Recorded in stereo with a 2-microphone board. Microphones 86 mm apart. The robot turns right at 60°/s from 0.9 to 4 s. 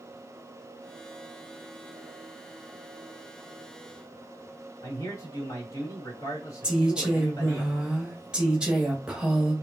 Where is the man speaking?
40° left (ahead or behind), 1.5 m.